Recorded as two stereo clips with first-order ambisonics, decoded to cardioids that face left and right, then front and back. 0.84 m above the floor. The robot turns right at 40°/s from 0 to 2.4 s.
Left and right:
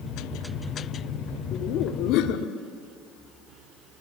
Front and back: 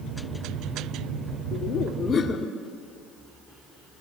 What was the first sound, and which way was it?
Laughter, 40° left.